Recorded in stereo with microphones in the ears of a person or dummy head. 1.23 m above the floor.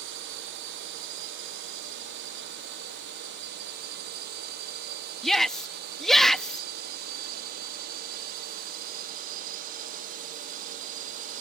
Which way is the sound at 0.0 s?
60° right (ahead or behind).